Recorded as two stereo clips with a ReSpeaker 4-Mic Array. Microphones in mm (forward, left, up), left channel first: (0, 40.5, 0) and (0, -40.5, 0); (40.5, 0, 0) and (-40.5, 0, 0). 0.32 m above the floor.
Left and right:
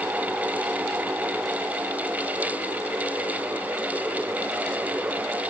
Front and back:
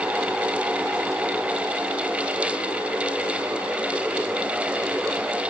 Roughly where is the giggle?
No giggle in this recording.